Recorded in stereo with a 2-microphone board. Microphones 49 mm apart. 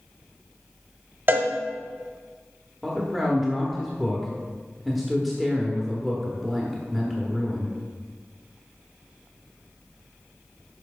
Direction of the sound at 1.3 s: 40° right (ahead or behind).